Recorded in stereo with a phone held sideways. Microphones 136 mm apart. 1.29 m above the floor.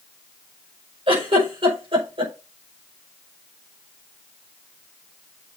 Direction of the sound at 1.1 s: 40° right (ahead or behind).